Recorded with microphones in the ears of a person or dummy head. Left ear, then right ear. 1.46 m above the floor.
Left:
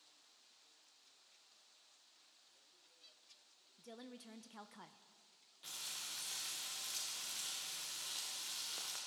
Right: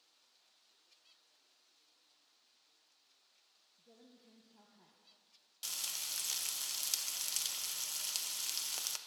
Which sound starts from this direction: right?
Frying, at 5.6 s.